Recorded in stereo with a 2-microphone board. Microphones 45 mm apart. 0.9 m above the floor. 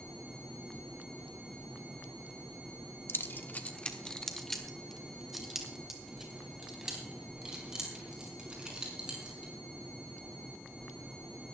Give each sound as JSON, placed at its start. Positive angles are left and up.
{"t": 3.1, "sound": "keys jangling", "side_deg": 60, "distance_m": 1.0}